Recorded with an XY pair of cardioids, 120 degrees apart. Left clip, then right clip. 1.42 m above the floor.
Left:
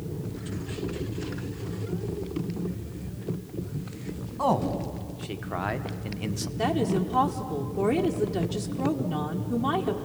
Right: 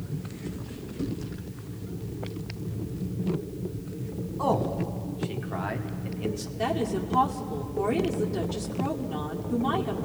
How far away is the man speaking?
About 1.8 m.